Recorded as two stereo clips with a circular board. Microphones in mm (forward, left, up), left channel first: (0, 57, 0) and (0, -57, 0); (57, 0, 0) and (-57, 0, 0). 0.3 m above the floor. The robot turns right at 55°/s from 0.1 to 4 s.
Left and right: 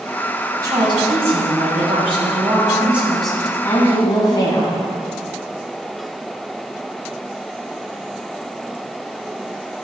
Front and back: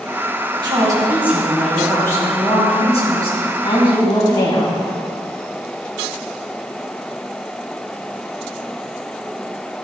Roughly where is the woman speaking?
Behind right.